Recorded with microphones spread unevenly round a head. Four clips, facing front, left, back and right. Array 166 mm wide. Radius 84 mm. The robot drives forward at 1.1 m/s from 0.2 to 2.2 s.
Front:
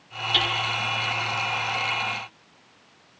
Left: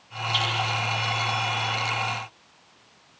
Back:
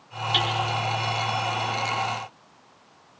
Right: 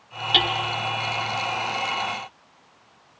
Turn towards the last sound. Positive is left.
turn(degrees=-115)